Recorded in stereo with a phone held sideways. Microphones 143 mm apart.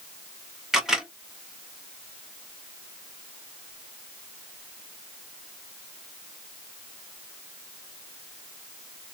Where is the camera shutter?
5° right (ahead or behind), 1.1 m.